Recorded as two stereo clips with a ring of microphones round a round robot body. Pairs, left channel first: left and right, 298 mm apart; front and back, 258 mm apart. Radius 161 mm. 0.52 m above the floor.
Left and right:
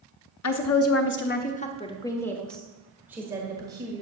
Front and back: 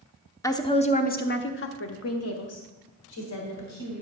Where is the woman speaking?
75° left, 1.1 m; by 4.0 s 15° right, 2 m.